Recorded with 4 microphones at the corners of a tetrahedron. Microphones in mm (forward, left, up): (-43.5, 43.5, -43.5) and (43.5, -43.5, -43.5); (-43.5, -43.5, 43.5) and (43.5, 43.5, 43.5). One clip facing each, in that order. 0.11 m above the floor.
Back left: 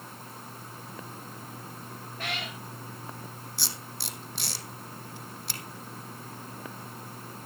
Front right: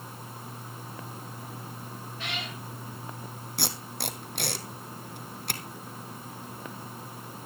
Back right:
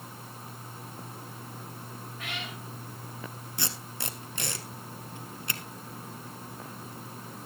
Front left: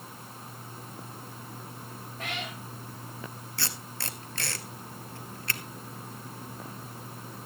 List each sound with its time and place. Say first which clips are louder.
2.2 s a cat meowing: back left 2 dB, front left 4 dB; 95° left, 6 m
3.6 s tape being pulled: front right 9 dB, back right 1 dB; 65° right, 1.2 m